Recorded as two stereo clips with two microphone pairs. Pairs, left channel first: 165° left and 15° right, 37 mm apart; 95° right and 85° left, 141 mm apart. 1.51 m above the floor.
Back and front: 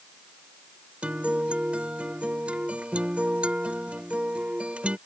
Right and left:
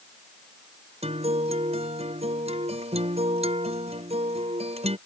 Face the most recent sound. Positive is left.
turn(degrees=40)